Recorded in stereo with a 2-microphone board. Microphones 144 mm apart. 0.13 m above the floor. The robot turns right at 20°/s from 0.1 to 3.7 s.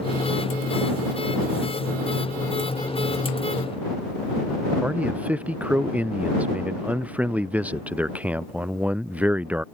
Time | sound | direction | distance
4.8 | a man speaking | 10° right (ahead or behind) | ?